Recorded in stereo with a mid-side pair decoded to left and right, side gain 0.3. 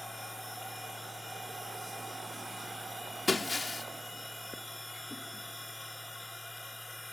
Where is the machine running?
20° left.